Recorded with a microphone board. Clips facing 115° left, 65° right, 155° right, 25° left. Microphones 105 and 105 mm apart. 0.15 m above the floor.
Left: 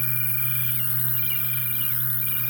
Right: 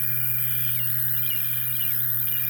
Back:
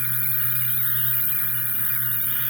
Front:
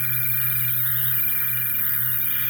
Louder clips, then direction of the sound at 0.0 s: Left 4 dB, front 1 dB; 105° right.